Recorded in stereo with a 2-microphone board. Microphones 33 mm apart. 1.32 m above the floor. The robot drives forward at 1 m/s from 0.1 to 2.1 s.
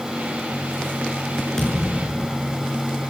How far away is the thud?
About 7 m.